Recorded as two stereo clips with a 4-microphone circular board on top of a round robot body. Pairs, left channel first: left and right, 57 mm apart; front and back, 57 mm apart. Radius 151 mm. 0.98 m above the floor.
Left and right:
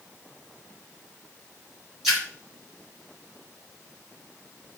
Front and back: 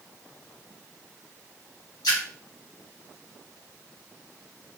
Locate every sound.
2.0 s a splash: 5° right, 1.0 m